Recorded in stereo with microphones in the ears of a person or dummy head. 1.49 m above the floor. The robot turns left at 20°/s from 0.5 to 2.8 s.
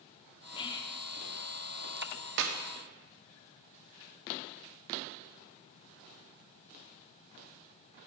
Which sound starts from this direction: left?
Whispering, at 0.6 s.